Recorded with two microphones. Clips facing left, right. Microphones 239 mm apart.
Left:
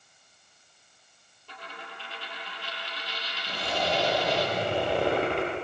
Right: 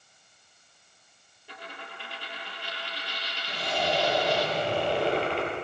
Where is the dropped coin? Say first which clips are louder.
Right 1 dB; 15° right (ahead or behind), 5 m.